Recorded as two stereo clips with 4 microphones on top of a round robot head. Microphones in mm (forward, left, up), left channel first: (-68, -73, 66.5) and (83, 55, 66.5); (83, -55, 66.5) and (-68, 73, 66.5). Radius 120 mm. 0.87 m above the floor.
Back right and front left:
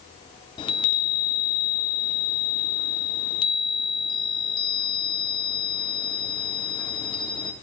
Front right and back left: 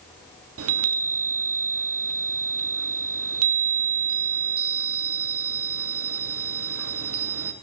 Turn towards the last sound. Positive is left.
turn(degrees=155)